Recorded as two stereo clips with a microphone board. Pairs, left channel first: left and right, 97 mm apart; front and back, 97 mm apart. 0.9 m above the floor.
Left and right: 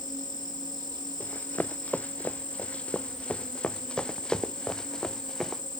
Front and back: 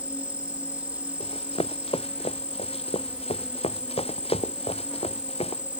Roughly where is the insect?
Right.